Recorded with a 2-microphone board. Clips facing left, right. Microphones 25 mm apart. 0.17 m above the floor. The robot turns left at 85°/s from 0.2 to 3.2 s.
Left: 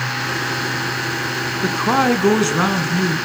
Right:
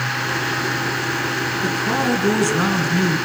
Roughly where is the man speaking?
Left.